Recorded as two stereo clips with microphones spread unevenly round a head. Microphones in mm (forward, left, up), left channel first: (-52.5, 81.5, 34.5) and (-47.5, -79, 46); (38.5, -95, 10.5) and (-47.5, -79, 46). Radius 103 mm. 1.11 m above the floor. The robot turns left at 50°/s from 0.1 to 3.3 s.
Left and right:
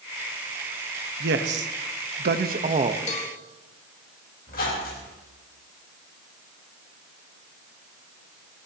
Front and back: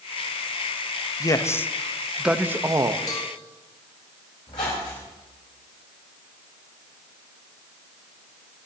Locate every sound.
1.2 s a man speaking: 55° right, 1.2 m; by 3.0 s 145° right, 1.2 m
3.1 s a cowbell: 45° left, 2.5 m; by 3.3 s 35° left, 2.5 m
4.5 s a squeak: 45° left, 5 m